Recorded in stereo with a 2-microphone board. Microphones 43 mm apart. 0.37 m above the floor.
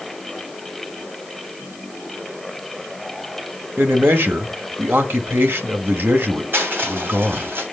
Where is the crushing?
50° right (ahead or behind), 3 m.